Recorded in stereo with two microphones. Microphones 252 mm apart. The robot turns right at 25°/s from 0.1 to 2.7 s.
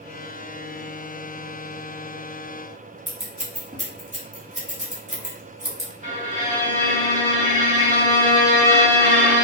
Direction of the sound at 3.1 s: 30° right (ahead or behind).